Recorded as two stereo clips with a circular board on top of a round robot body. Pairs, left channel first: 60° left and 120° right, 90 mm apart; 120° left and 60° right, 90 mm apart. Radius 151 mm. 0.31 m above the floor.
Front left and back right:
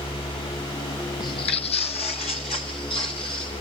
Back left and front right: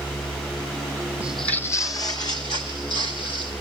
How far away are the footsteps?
About 0.6 m.